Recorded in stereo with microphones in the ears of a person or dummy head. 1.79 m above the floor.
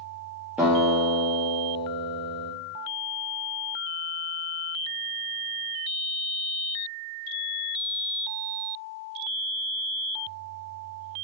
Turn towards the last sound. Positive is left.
turn(degrees=-5)  # may be behind; listen again after turning